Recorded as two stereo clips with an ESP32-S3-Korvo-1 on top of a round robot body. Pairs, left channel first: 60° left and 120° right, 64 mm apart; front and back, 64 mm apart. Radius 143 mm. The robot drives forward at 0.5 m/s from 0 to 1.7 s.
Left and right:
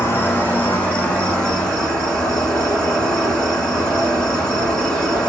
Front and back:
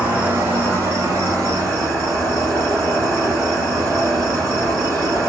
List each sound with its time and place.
0.0 s an insect: 110° left, 1.2 m; by 5.3 s 140° left, 1.7 m